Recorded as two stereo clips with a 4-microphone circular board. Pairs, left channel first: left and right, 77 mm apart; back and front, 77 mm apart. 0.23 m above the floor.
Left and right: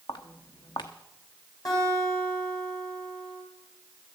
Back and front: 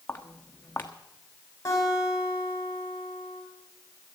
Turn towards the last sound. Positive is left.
turn(degrees=130)